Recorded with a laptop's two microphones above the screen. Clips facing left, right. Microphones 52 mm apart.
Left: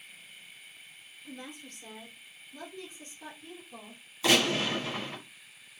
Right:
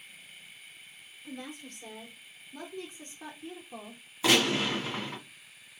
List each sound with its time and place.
1.2 s a woman speaking: 25° right (ahead or behind), 3 m; by 4.0 s 50° right (ahead or behind), 1.0 m
4.2 s a gunshot: 20° right (ahead or behind), 3 m